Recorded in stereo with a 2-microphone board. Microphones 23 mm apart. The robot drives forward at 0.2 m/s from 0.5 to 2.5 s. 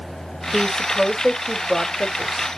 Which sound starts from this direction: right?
A woman speaking, at 0.5 s.